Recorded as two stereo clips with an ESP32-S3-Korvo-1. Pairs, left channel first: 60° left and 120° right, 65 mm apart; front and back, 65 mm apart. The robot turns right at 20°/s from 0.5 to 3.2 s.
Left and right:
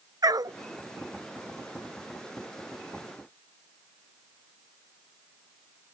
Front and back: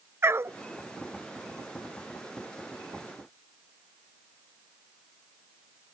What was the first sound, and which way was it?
A dog barking, 130° right.